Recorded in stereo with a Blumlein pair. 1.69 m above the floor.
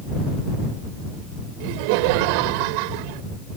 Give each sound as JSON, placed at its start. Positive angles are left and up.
{"t": 1.6, "sound": "laughter", "azimuth_deg": -45}